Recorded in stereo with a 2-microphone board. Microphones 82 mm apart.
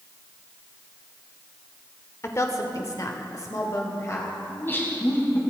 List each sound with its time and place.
2.2 s a woman speaking: 35° left (ahead or behind), 1.1 m
4.5 s laughter: 25° left (ahead or behind), 2.5 m